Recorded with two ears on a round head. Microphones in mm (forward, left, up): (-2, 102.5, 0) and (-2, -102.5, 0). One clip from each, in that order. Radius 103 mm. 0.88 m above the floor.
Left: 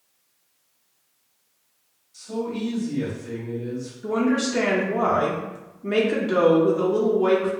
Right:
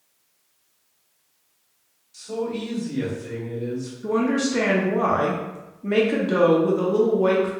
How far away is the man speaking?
About 1.8 m.